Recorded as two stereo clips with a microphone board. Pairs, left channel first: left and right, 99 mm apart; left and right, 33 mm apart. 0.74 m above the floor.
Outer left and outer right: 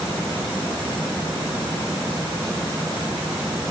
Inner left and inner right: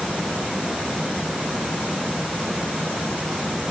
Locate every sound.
Only background noise.